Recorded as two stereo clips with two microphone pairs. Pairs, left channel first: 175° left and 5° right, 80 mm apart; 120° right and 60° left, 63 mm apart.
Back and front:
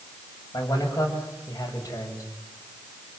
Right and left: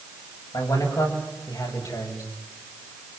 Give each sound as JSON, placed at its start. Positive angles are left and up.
{"t": 0.5, "sound": "a man speaking", "azimuth_deg": -140, "distance_m": 8.5}